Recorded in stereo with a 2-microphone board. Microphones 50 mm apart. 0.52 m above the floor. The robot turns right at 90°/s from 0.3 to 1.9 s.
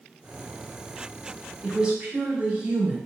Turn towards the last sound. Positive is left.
turn(degrees=-25)  # may be behind; listen again after turning